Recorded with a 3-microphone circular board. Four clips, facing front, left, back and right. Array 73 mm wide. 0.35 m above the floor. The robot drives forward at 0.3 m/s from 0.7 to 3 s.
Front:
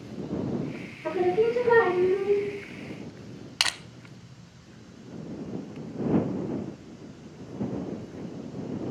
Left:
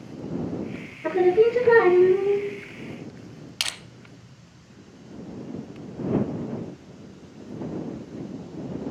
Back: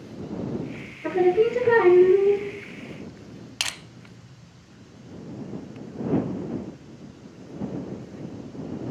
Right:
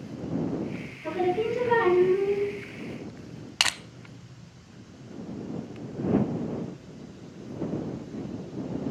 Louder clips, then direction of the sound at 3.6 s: Right 6 dB, front 4 dB; 65° right.